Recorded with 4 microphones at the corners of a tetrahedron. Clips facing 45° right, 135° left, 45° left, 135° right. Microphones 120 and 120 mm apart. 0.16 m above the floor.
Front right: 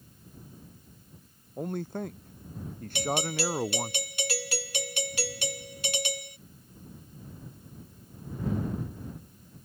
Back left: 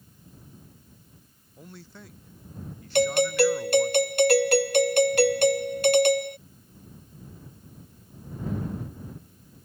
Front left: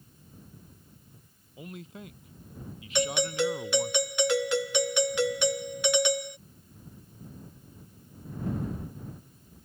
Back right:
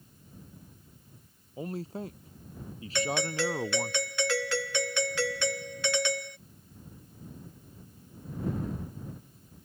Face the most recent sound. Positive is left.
turn(degrees=115)